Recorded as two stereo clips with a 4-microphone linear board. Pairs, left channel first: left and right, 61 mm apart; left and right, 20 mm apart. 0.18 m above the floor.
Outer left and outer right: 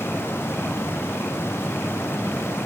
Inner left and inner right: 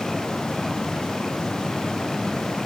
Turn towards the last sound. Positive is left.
No sound to turn to.